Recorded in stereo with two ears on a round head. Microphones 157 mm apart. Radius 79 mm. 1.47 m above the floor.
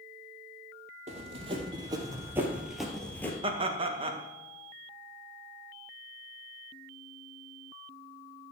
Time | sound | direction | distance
1.1 | running footsteps | 35° right (ahead or behind) | 3 m
3.4 | laughter | 30° right (ahead or behind) | 1.7 m